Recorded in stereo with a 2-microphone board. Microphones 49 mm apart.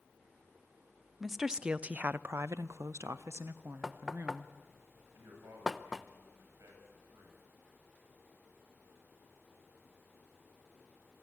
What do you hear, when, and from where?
1.2 s a woman speaking: 5° right (ahead or behind), 0.8 m; by 4.5 s 50° right (ahead or behind), 1.4 m
3.8 s knocking: 10° right (ahead or behind), 0.8 m
5.1 s a man speaking: 85° right, 8.5 m